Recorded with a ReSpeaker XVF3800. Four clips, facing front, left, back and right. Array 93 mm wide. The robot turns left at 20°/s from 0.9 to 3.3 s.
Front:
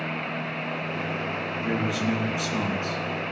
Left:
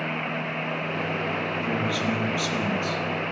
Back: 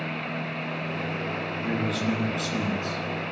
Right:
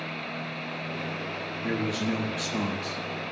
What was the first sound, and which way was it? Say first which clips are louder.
A man speaking: right 1 dB, front 1 dB; 60° right.